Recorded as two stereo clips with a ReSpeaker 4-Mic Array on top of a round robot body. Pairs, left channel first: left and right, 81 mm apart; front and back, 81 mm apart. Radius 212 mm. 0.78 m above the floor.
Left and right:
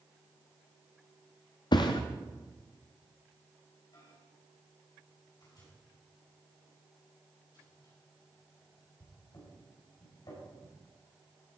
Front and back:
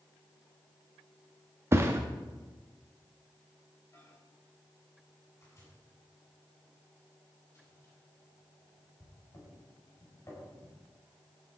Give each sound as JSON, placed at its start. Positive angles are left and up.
{"t": 1.7, "sound": "a thud", "azimuth_deg": 120, "distance_m": 0.5}
{"t": 3.9, "sound": "a microwave", "azimuth_deg": 55, "distance_m": 6.0}